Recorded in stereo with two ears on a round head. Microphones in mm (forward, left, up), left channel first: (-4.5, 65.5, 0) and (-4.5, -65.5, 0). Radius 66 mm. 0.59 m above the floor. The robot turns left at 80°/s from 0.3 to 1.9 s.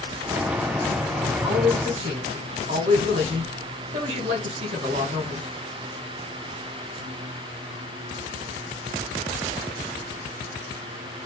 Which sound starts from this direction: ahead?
A man speaking, at 1.4 s.